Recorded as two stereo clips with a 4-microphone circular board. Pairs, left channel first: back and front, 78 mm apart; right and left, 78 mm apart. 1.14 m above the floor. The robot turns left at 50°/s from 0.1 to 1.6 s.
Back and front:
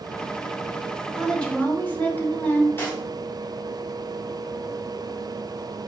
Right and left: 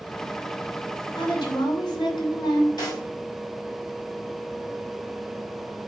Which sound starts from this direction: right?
A woman speaking, at 1.1 s.